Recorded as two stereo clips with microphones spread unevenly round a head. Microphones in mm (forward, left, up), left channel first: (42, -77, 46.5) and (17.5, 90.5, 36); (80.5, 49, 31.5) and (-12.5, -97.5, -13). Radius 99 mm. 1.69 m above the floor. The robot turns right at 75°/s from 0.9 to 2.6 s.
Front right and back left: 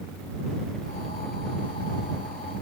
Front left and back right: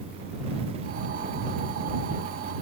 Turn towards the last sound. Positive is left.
No sound to turn to.